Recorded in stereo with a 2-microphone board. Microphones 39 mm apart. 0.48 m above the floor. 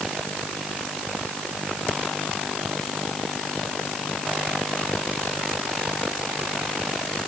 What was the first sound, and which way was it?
Only background noise.